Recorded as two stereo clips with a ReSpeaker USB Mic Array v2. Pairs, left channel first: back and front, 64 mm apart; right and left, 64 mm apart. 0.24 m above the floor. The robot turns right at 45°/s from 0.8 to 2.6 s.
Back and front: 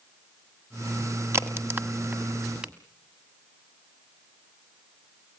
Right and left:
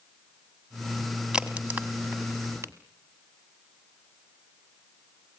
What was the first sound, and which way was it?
A crack, 15° left.